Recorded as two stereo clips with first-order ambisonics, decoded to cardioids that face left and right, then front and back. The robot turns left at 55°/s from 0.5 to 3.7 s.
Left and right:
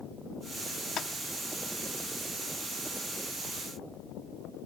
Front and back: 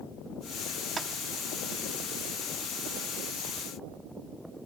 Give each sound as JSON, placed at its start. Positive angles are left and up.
{"t": 1.0, "sound": "tapping", "azimuth_deg": 115, "distance_m": 0.8}